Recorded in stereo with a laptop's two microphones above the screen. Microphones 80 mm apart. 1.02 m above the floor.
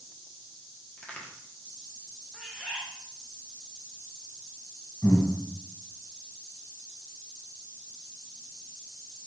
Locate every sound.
1.0 s a crack: 15° left (ahead or behind), 1.1 m
2.3 s a bird: centre (ahead or behind), 0.7 m
5.0 s breathing: 30° left (ahead or behind), 2 m